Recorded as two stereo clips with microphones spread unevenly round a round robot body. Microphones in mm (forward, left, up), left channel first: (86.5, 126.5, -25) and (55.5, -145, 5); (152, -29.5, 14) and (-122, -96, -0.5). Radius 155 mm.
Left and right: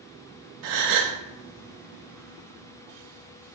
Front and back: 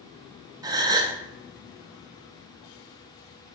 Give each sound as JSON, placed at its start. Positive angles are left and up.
{"t": 0.6, "sound": "a gasp", "azimuth_deg": -90, "distance_m": 0.6}